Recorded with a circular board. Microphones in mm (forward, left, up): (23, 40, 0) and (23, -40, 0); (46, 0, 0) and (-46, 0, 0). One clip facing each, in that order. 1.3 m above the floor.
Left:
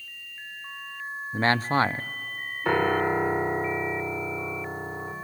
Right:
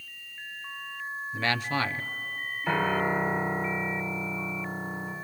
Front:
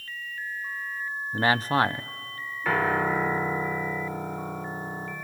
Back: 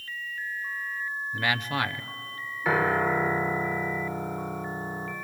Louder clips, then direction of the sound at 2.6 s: Left 3 dB, back 1 dB; 100° left.